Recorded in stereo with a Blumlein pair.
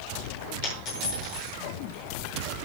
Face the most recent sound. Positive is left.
turn(degrees=40)